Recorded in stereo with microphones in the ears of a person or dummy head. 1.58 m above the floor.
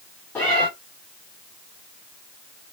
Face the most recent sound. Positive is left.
turn(degrees=5)  # may be behind; listen again after turning